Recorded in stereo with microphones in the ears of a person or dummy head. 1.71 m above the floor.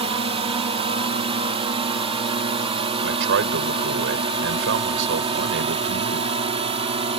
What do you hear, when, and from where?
0.0 s a drone: 30° right (ahead or behind)
3.0 s a man speaking: 70° right (ahead or behind)